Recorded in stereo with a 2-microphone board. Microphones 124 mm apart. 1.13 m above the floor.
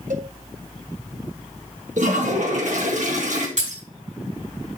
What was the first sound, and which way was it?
A cowbell, 75° right (ahead or behind).